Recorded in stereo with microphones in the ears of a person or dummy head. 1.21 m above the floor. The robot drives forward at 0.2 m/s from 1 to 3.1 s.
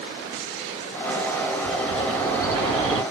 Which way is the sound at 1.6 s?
35° right (ahead or behind).